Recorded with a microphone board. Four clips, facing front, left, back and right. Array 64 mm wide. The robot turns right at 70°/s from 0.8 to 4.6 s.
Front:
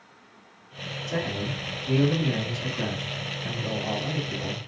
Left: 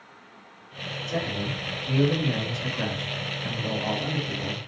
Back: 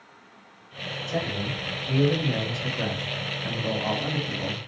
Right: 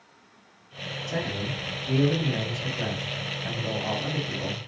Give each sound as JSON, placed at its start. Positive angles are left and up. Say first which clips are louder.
{"t": 1.1, "sound": "a man speaking", "louder": "left 1 dB, even", "azimuth_deg": -45, "distance_m": 1.3}